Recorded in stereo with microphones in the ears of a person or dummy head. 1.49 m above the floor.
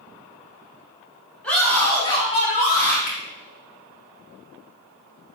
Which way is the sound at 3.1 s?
40° left (ahead or behind).